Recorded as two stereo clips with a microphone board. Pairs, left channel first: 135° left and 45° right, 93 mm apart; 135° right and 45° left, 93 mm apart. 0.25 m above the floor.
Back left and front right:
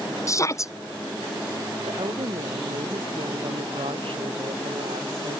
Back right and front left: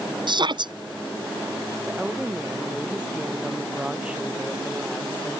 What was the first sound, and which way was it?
A shout, 80° left.